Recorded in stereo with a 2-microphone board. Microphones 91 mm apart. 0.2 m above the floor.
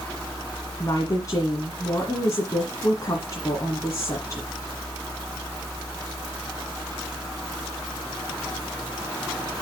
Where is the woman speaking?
40° left (ahead or behind), 1.8 m.